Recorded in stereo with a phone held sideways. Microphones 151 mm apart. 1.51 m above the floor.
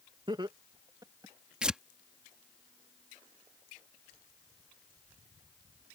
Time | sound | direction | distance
0.3 | laughter | 30° right (ahead or behind) | ?
1.6 | tearing paper | 5° right (ahead or behind) | ?